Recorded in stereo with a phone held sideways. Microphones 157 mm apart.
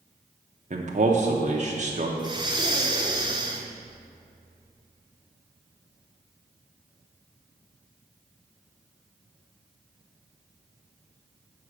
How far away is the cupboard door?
I don't hear a cupboard door.